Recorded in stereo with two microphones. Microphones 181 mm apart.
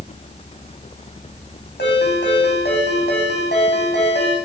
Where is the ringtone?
75° left (ahead or behind), 8.5 m.